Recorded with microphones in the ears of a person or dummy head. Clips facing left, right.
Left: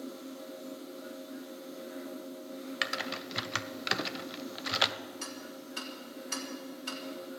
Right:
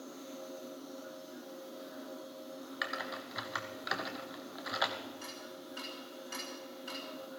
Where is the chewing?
I don't hear chewing.